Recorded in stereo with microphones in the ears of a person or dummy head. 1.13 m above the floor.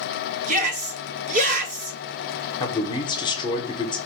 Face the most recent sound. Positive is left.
turn(degrees=15)  # may be behind; listen again after turning